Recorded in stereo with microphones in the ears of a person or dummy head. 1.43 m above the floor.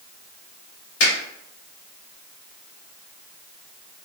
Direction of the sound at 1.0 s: 70° left (ahead or behind).